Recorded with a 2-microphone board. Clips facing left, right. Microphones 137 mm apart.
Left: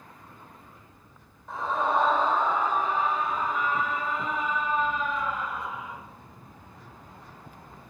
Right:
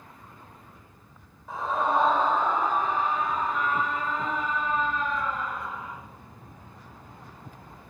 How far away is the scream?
About 4 m.